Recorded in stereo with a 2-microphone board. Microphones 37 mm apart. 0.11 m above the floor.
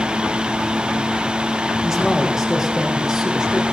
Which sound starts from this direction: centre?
A man speaking, at 1.8 s.